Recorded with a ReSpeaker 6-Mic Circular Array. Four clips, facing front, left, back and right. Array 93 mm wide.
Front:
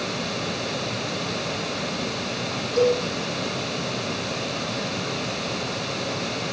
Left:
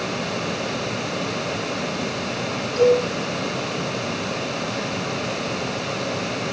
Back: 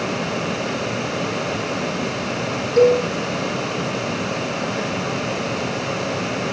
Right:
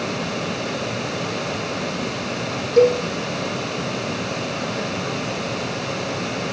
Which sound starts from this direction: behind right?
A cowbell, at 2.8 s.